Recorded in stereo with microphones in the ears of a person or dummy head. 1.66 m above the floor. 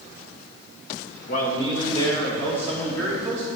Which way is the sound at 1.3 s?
50° left (ahead or behind).